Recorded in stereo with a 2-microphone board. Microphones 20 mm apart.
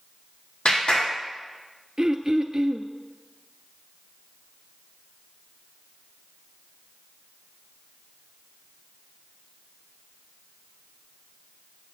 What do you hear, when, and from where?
0.7 s a clap: 75° left (ahead or behind), 4 m
2.0 s throat clearing: 30° right (ahead or behind), 0.8 m